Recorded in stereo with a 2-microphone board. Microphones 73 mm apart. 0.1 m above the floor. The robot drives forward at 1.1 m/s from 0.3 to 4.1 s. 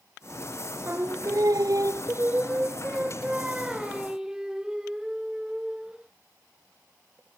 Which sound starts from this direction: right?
Singing, at 0.8 s.